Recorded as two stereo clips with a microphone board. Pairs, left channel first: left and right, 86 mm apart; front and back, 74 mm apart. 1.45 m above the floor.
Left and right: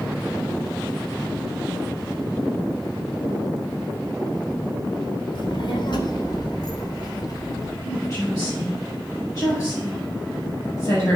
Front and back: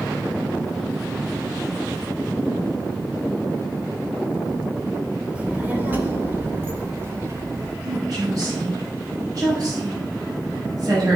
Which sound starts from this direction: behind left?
A woman speaking, at 7.8 s.